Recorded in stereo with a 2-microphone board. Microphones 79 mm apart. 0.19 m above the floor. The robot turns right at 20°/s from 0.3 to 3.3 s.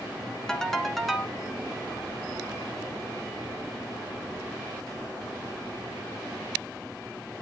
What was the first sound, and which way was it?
A ringtone, 10° left (ahead or behind).